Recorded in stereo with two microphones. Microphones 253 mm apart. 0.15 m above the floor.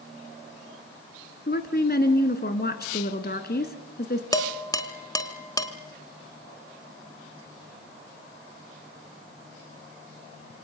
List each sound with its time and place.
1.5 s a woman speaking: 40° left (ahead or behind), 1.7 m
4.3 s dishes clattering: 15° left (ahead or behind), 1.1 m